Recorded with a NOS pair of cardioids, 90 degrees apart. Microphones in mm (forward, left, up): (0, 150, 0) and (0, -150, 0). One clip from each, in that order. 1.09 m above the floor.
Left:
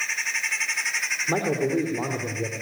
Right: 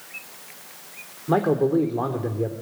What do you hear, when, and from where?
1.3 s a man speaking: 35° right, 3.5 m